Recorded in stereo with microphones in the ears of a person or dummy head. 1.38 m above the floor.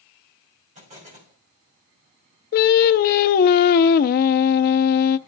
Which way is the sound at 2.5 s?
45° left (ahead or behind).